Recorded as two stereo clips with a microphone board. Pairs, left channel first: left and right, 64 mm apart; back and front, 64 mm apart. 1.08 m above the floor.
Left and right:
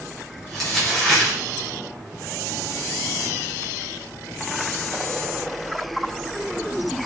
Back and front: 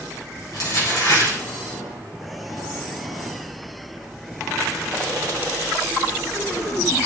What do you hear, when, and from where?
0.5 s crumpling: 175° left, 4 m